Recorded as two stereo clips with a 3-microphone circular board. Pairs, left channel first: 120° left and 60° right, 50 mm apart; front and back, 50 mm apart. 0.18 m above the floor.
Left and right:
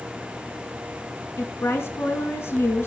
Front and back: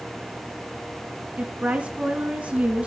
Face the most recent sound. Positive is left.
turn(degrees=120)